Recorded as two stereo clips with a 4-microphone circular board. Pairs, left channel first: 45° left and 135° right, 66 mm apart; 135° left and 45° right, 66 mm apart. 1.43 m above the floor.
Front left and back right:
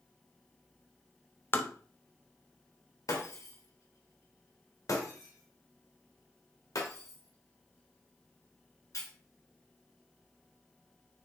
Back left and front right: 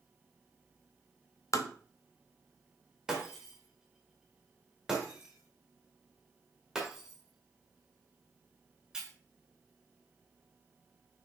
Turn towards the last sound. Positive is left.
turn(degrees=35)